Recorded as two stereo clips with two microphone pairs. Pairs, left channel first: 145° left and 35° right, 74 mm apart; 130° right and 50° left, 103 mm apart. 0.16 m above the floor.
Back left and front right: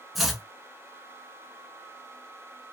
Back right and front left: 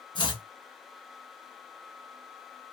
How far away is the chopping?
About 0.8 m.